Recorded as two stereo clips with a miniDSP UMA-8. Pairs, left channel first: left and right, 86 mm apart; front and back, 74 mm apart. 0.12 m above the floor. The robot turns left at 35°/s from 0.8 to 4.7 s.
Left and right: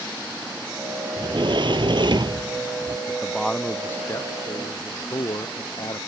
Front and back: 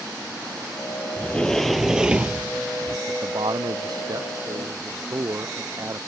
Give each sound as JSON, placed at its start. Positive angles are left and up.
{"t": 1.2, "sound": "a sliding door", "azimuth_deg": -70}
{"t": 3.1, "sound": "a man speaking", "azimuth_deg": -175}